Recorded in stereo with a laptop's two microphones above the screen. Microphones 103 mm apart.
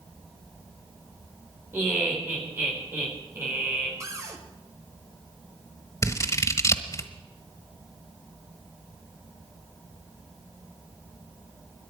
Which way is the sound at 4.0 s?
30° right (ahead or behind).